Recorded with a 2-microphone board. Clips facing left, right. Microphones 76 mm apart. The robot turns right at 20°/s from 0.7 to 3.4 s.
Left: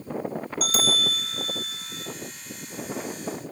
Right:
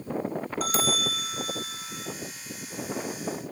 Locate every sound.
0.6 s a bell: 25° right (ahead or behind), 0.5 m; by 2.1 s 20° right (ahead or behind), 0.5 m